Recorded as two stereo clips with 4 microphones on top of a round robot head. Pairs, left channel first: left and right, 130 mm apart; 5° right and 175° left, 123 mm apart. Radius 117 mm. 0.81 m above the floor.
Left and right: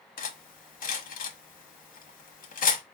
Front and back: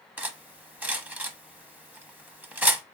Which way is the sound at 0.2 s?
95° left.